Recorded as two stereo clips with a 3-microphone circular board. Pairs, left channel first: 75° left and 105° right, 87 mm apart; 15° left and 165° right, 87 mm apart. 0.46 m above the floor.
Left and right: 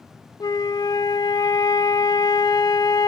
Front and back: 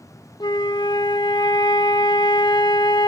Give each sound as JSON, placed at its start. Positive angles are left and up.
{"t": 0.4, "sound": "a flute", "azimuth_deg": 40, "distance_m": 0.7}